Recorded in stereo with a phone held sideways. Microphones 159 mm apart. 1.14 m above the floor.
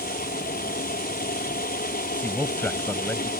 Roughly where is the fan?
Left.